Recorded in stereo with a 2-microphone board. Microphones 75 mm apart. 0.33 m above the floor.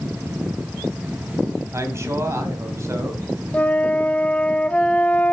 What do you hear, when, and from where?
1.7 s a man speaking: 40° right (ahead or behind), 2 m
3.5 s a flute: 20° left (ahead or behind), 0.6 m